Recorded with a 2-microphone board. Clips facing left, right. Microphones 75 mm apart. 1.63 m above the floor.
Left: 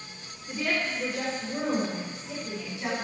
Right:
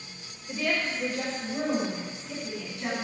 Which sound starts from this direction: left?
A woman speaking, at 0.5 s.